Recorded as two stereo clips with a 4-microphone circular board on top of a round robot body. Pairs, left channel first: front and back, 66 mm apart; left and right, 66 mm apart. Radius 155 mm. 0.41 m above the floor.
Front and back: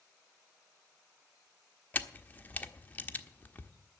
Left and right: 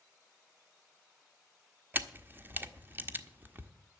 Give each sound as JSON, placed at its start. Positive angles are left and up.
{"t": 1.9, "sound": "a camera shutter", "azimuth_deg": -50, "distance_m": 1.3}